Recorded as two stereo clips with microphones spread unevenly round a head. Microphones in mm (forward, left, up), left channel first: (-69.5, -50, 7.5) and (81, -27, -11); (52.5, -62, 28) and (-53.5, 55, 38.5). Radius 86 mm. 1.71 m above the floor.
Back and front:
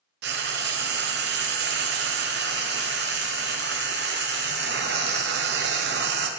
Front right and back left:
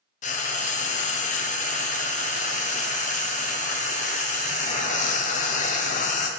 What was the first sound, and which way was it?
Frying, straight ahead.